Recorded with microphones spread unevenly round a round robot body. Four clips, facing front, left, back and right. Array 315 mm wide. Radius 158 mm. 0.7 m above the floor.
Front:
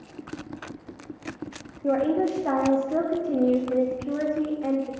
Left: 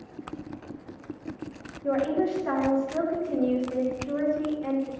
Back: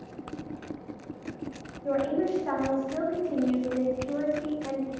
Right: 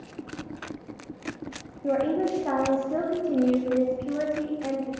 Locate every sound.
1.8 s a woman speaking: 15° right, 1.1 m